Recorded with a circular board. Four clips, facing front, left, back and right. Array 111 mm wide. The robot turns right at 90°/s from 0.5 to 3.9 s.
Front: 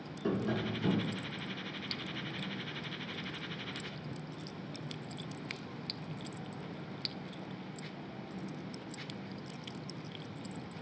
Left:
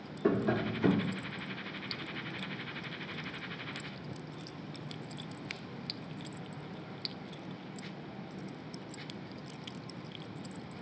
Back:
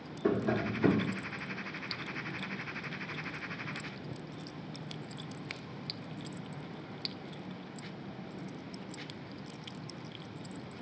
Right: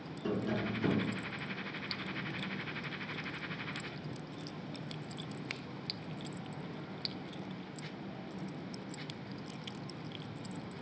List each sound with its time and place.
0.2 s tapping: 120° left, 0.9 m; by 1.2 s 175° right, 0.9 m